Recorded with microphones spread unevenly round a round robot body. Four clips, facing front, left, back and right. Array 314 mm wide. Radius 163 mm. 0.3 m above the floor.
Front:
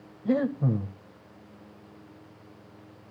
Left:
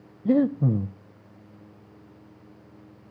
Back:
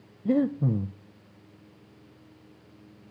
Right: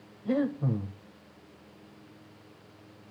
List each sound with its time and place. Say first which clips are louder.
0.2 s breathing: left 7 dB, back 1 dB; 100° left, 0.6 m